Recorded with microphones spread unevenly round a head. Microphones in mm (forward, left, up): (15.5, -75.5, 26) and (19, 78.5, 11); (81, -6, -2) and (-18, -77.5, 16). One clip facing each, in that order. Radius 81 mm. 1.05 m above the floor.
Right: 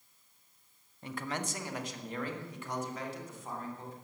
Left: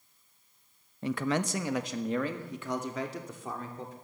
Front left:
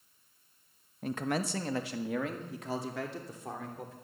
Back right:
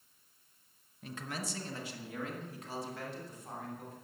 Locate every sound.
1.0 s a man speaking: 80° left, 0.8 m; by 4.0 s 75° left, 3 m